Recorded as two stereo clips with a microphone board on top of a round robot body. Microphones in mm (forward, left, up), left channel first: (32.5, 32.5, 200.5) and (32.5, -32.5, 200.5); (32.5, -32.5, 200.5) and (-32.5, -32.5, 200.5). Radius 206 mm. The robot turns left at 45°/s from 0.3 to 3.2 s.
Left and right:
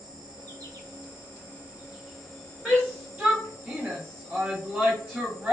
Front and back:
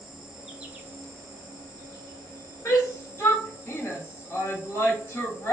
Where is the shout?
10° right, 1.9 m; by 5.5 s 35° right, 1.9 m.